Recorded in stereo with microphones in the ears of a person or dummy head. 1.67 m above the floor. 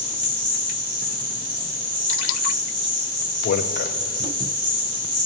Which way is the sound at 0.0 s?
40° right (ahead or behind).